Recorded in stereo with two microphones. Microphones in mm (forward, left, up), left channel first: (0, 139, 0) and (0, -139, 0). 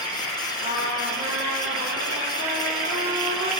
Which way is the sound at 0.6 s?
55° right (ahead or behind).